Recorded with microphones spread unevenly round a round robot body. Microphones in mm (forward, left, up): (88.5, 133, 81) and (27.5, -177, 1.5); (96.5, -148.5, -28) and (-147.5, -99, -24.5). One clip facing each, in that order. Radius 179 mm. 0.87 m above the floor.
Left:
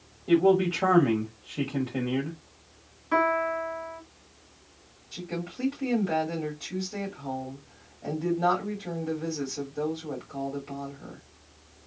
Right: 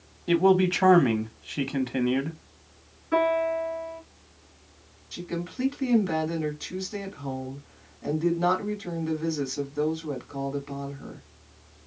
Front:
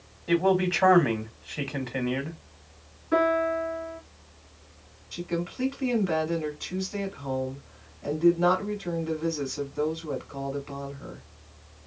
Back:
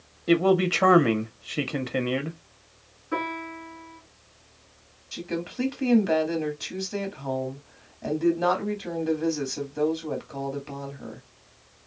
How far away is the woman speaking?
About 2 m.